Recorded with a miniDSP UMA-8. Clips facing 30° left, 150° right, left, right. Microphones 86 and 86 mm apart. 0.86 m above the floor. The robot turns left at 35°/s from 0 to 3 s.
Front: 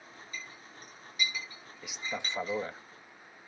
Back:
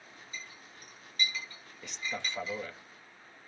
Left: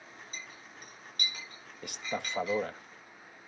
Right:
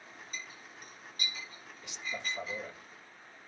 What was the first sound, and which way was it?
A clink, 145° left.